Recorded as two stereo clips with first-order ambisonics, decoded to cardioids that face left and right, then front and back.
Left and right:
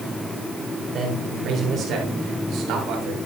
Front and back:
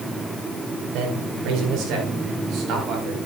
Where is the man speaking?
155° right, 4.5 m; by 3.2 s 130° right, 4 m.